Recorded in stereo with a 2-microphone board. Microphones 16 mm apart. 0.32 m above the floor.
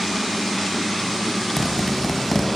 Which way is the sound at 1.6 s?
25° left (ahead or behind).